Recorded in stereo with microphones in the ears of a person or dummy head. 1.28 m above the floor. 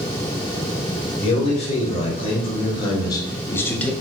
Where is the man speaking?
40° left (ahead or behind), 2 m; by 3.9 s 10° left (ahead or behind), 0.9 m.